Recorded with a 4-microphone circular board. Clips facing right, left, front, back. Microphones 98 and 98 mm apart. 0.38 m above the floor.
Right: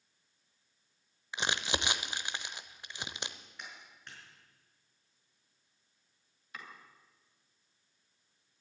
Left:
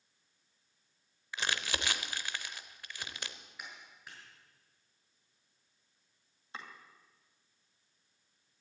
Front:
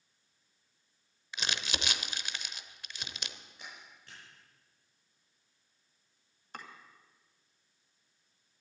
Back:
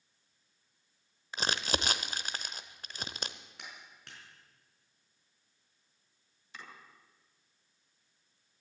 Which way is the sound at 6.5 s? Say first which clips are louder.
Left 2 dB, front 4 dB; 35° left.